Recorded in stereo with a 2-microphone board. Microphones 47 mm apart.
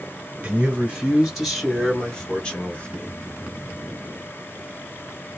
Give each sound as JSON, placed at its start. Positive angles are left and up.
{"t": 0.4, "sound": "a man speaking", "side_deg": -20, "distance_m": 1.4}